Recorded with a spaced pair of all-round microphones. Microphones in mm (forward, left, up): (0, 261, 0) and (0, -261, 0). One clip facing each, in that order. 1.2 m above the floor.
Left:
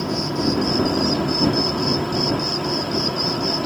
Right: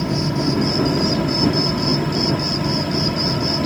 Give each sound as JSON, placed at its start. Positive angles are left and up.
{"t": 0.0, "sound": "an insect", "side_deg": -45}